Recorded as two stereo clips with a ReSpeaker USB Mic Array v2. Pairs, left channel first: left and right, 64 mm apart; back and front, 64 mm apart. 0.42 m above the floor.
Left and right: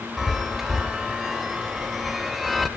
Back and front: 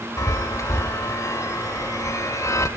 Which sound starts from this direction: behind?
A chime, at 0.2 s.